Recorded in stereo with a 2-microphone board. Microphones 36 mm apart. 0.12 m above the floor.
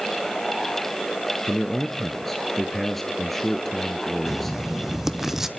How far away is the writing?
About 1.3 m.